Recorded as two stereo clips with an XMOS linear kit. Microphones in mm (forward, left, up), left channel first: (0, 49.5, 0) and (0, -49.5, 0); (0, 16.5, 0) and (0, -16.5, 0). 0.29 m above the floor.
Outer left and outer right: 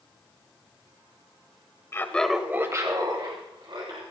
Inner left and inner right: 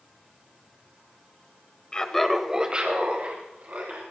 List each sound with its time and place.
1.9 s laughter: 30° left (ahead or behind), 1.0 m; by 4.0 s 60° right (ahead or behind), 2.5 m